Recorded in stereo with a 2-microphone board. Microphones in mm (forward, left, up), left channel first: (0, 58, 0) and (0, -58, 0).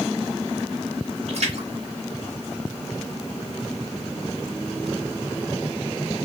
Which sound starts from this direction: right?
A splash, at 1.3 s.